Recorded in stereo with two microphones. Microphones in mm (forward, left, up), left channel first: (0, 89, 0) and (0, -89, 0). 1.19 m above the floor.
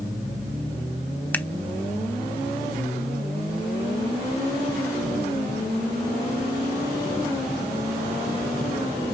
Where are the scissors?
10° left (ahead or behind), 0.8 m.